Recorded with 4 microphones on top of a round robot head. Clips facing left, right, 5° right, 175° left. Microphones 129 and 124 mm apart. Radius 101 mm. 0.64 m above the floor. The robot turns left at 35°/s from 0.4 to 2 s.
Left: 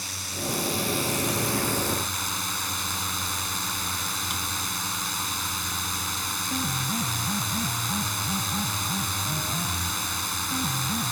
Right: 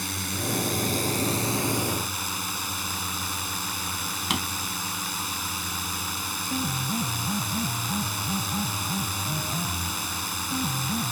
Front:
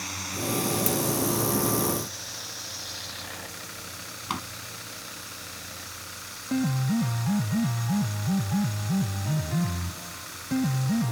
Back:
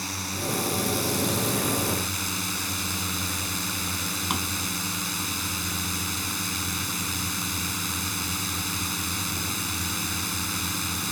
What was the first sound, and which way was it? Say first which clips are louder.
A drone: right 3 dB, back 1 dB; 115° right.